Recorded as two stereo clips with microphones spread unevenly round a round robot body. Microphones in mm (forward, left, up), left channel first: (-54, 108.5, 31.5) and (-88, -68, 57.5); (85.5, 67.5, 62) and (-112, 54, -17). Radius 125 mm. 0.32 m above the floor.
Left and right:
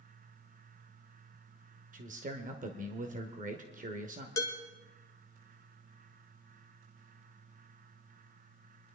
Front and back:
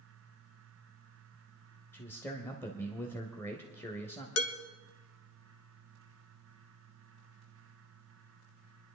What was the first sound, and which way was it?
A man speaking, 105° right.